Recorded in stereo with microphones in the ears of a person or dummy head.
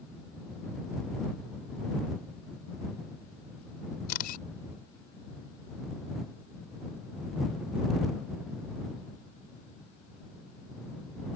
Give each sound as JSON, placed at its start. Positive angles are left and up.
{"t": 4.1, "sound": "a camera shutter", "side_deg": 50}